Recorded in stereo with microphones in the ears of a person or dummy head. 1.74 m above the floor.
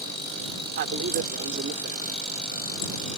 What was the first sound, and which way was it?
A man speaking, 50° right (ahead or behind).